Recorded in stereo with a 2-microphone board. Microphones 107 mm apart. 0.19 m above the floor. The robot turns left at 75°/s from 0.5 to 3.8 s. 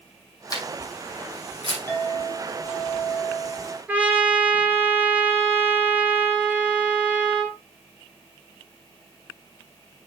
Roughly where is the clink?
Behind.